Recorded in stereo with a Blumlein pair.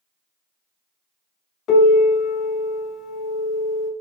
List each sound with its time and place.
1.7 s a piano: 30° left, 0.7 m